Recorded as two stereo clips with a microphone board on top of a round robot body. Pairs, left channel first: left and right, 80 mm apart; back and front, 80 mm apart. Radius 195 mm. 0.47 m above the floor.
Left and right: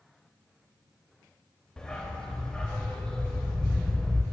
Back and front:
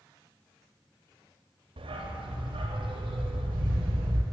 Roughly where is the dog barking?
Ahead.